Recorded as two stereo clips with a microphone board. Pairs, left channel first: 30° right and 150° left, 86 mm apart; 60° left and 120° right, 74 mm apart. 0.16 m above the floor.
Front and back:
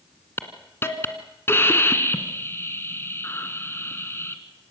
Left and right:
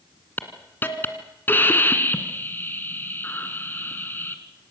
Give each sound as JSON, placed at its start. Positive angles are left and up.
{"t": 0.4, "sound": "a hiss", "azimuth_deg": 15, "distance_m": 1.8}